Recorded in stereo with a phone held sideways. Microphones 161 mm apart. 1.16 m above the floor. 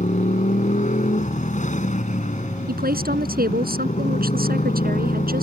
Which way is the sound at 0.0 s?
50° left (ahead or behind).